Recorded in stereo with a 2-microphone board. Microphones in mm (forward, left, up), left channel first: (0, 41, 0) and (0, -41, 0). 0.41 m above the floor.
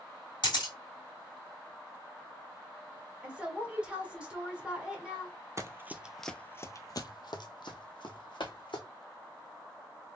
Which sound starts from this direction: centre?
A woman speaking, at 3.2 s.